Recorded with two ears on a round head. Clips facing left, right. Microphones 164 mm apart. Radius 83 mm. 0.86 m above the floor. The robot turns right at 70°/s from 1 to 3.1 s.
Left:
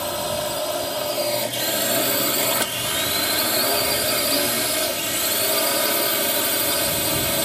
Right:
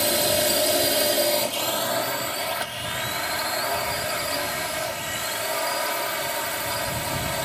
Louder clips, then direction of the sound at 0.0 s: Right 2 dB; 25° right.